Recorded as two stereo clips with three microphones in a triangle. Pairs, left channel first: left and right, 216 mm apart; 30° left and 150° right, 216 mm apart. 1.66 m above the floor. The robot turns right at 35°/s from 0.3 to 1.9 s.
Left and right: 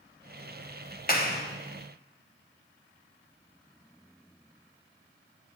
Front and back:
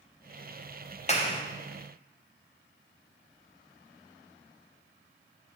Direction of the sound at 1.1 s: 75° left.